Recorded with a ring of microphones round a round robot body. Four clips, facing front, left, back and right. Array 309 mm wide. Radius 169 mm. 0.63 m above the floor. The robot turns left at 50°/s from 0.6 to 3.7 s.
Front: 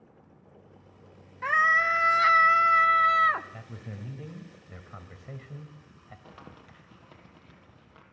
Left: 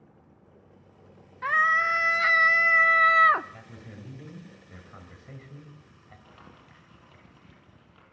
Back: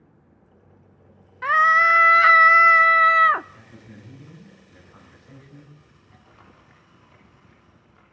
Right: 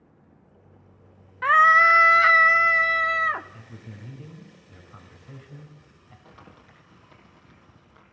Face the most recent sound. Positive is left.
turn(degrees=-10)